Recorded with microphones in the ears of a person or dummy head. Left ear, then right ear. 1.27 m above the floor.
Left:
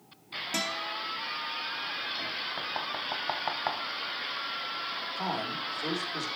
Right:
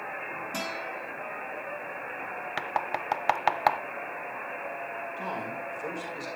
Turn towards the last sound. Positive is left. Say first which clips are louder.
# left 3 dB
turn(degrees=75)  # may be behind; listen again after turning